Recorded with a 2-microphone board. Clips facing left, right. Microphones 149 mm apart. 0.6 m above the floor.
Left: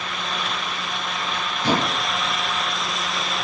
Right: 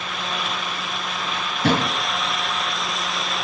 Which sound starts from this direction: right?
A drawer, at 1.6 s.